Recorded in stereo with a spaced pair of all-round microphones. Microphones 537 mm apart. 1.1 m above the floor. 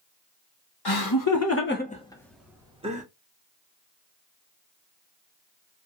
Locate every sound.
0.8 s laughter: 45° left (ahead or behind), 0.9 m; by 3.0 s 15° right (ahead or behind), 1.2 m